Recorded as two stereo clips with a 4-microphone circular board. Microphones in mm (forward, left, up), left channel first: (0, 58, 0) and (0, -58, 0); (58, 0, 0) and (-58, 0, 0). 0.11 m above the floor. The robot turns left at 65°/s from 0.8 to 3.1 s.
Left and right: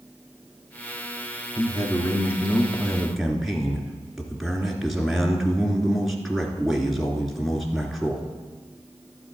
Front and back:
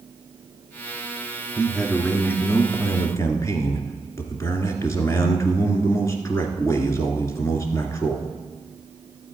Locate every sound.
1.6 s a man speaking: 95° left, 1.6 m; by 8.3 s 5° right, 1.6 m